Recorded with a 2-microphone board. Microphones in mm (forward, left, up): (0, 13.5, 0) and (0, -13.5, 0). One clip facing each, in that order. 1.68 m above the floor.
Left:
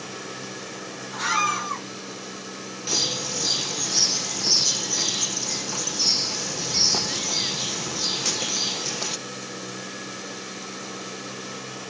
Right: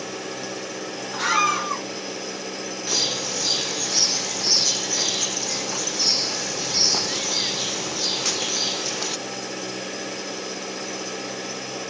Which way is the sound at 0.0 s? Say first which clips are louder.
Right 4 dB; 65° right (ahead or behind).